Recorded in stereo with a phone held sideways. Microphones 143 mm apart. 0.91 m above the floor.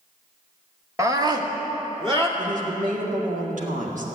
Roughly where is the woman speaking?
Right.